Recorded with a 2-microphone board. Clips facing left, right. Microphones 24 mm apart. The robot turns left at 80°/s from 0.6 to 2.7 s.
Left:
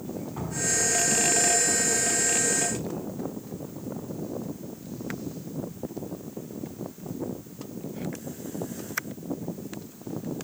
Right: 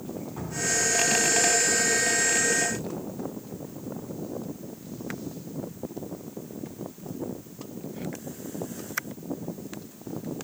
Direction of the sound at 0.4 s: 15° left (ahead or behind).